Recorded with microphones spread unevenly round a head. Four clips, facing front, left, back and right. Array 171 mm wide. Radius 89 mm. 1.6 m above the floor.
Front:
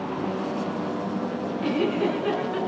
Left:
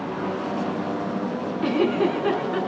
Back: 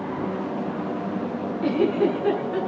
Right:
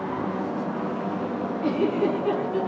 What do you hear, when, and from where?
1.6 s a giggle: 115° left, 7.5 m